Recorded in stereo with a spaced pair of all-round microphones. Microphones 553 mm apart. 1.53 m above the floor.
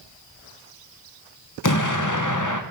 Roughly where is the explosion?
Left.